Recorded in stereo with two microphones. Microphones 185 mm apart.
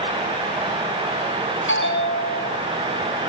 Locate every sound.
1.7 s a bell: 80° left, 7 m